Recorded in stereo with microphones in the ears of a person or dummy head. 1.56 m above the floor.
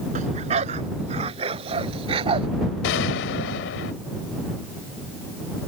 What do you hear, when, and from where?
0.1 s a dog barking: 40° right (ahead or behind); by 2.5 s 30° right (ahead or behind)
2.8 s a gunshot: 55° left (ahead or behind)